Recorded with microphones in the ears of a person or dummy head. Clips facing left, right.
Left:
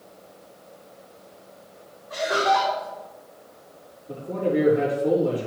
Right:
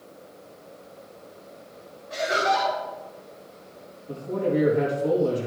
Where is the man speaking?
75° right (ahead or behind), 3.5 m.